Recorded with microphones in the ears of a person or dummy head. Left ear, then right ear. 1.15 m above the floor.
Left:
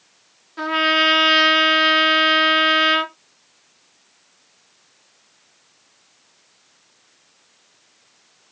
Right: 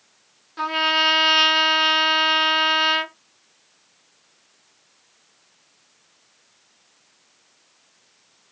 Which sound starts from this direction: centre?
A trumpet, at 0.6 s.